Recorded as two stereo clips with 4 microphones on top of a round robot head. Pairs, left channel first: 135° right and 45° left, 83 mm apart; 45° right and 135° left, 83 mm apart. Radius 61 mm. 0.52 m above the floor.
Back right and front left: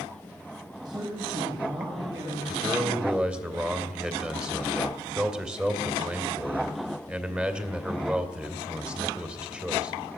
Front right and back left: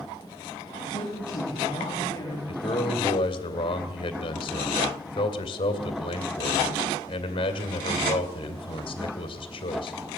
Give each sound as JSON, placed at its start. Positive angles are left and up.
{"t": 0.8, "sound": "a man speaking", "azimuth_deg": 5, "distance_m": 4.5}
{"t": 2.5, "sound": "a man speaking", "azimuth_deg": -35, "distance_m": 2.5}